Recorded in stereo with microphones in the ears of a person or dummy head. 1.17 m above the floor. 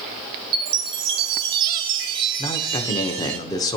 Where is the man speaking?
15° left (ahead or behind), 0.7 m.